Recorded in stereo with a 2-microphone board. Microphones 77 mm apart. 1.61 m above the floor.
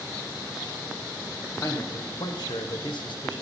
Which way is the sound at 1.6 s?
40° left (ahead or behind).